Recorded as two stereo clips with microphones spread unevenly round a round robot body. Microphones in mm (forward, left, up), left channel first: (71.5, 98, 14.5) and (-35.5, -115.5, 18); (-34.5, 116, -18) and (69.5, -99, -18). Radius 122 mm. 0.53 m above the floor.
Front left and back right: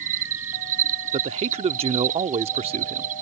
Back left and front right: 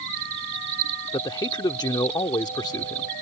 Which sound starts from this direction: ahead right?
An insect, at 0.0 s.